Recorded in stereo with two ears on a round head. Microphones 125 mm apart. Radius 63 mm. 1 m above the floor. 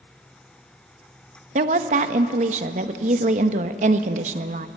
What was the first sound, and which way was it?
A woman speaking, 55° right (ahead or behind).